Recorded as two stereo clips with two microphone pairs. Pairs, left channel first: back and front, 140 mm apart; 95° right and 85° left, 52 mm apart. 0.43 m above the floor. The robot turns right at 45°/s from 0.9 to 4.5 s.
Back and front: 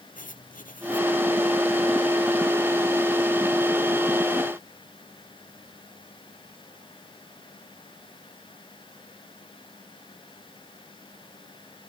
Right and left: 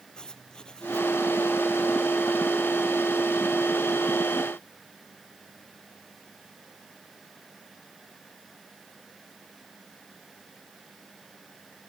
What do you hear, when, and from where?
0.1 s writing: 165° right; by 1.1 s 160° right